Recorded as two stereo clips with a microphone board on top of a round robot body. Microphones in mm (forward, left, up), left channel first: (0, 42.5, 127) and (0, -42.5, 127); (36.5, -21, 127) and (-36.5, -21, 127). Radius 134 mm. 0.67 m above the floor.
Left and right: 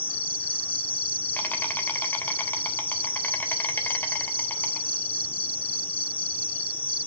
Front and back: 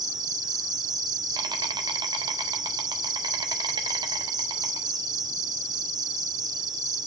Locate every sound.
0.0 s an insect: 160° left, 1.7 m